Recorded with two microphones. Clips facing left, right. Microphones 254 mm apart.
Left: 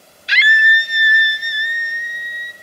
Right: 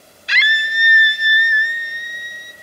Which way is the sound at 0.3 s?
55° right (ahead or behind).